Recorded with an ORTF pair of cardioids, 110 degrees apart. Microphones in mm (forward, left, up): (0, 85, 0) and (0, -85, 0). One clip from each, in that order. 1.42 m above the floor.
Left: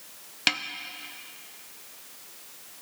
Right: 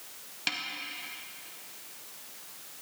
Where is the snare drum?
40° left, 0.7 m.